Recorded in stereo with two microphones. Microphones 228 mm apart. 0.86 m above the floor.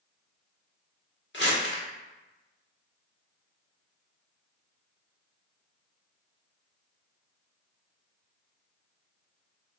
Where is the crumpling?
55° left (ahead or behind), 1.4 m.